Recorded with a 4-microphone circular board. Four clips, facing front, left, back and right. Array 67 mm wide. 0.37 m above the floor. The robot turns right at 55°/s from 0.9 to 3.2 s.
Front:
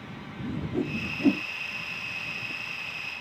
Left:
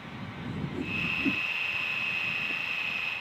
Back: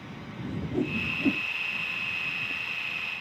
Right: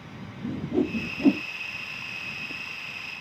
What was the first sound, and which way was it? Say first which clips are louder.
A whoosh: right 10 dB, even; 90° right.